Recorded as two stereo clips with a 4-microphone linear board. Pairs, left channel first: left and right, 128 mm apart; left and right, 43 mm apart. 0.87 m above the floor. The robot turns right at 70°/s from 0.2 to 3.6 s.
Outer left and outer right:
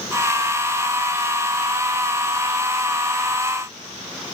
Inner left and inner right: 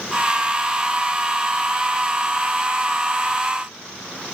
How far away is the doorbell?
No doorbell in this recording.